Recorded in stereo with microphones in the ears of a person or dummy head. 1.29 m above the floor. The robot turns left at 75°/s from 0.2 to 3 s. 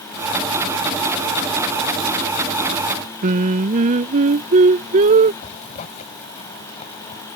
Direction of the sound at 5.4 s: 40° left (ahead or behind).